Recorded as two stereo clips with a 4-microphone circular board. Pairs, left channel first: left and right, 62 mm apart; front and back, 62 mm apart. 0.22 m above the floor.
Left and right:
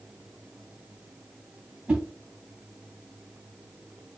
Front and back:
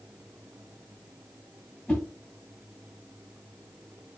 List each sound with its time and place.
1.9 s a whoosh: 35° right, 1.7 m